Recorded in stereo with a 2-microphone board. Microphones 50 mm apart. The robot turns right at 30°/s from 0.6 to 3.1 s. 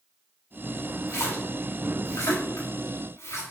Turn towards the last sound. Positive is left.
turn(degrees=60)  # may be behind; listen again after turning